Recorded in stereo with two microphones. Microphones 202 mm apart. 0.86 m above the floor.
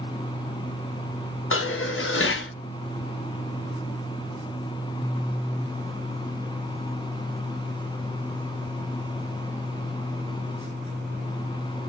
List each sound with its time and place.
1.5 s dishes clattering: 70° left (ahead or behind), 0.5 m